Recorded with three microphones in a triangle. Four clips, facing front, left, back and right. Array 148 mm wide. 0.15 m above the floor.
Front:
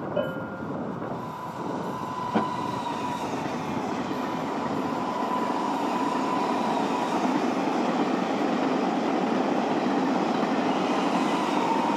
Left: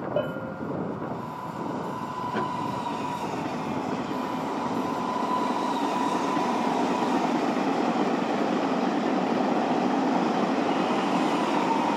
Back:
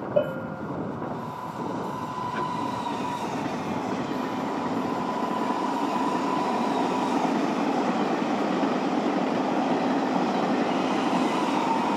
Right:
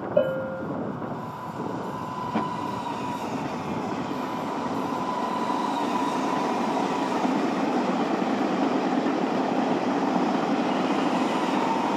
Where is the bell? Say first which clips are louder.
Right 8 dB, back 6 dB; 140° left, 5 m.